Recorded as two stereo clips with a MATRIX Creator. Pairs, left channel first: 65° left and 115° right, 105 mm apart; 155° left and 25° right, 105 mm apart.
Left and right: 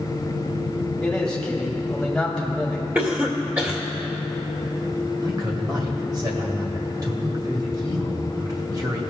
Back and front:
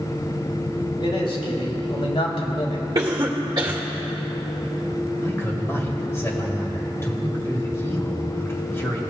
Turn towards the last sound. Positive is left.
turn(degrees=-145)